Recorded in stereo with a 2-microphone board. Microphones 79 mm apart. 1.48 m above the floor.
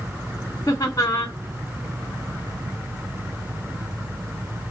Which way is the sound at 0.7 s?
45° left (ahead or behind).